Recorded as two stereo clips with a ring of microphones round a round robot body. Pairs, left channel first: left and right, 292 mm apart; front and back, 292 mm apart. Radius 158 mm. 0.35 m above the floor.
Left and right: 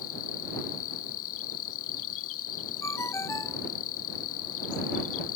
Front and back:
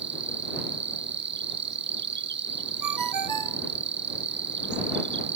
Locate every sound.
0.0 s an insect: 135° left
2.8 s a ringtone: 170° left